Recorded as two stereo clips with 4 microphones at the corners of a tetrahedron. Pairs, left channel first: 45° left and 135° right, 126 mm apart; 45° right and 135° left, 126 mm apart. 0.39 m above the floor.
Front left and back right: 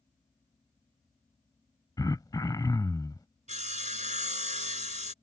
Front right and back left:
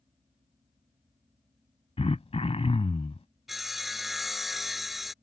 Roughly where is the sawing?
Behind right.